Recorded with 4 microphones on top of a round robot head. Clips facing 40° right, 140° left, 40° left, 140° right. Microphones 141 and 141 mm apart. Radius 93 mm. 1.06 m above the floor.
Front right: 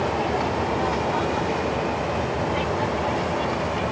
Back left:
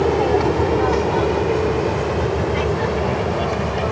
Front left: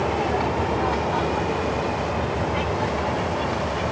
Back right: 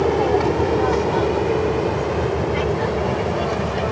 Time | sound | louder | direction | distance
0.0 | an aircraft | back left 7 dB, back right 6 dB | 175° left | ?